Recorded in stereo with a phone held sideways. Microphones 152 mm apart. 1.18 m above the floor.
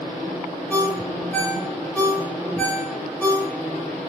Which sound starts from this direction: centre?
A ringtone, at 0.7 s.